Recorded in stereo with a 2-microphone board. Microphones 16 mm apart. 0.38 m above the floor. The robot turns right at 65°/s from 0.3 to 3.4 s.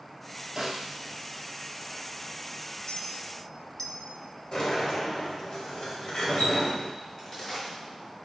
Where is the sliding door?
45° left (ahead or behind), 2.5 m.